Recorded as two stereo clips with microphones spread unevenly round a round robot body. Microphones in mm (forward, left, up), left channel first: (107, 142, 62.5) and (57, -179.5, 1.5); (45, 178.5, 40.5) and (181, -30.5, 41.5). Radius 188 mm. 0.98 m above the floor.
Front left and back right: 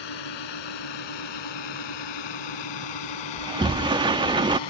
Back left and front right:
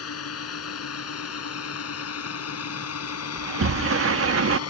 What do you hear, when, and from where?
0.0 s a drone: 105° left
3.4 s a sliding door: 20° right